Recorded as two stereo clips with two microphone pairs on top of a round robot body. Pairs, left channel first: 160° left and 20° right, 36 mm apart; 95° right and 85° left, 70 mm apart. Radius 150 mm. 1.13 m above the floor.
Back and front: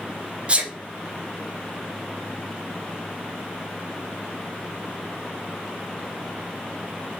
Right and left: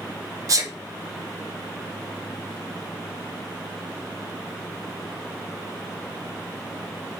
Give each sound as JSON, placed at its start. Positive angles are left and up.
{"t": 0.5, "sound": "a sneeze", "azimuth_deg": 40, "distance_m": 0.6}